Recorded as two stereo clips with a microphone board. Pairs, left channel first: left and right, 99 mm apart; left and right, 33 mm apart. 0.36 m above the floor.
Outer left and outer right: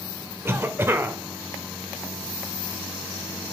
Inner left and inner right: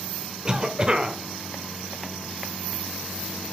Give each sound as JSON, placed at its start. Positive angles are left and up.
{"t": 0.5, "sound": "a cough", "side_deg": -25, "distance_m": 1.0}